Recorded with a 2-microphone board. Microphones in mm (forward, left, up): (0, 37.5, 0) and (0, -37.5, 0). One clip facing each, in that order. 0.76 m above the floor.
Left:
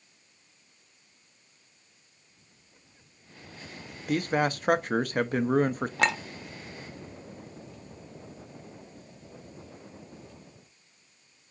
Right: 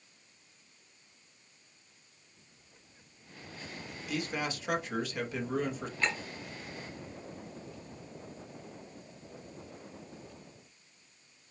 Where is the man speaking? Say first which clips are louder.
Left 9 dB; 45° left (ahead or behind), 0.6 m.